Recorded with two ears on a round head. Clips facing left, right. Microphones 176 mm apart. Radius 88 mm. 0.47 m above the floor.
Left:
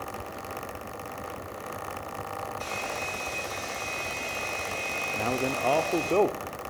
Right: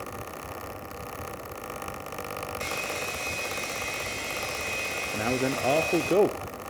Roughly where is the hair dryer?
Right.